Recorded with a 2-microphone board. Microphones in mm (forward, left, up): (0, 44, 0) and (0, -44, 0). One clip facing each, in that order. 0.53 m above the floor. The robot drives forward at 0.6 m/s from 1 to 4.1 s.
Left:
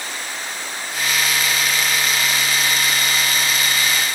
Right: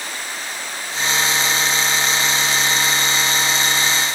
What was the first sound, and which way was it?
Only background noise.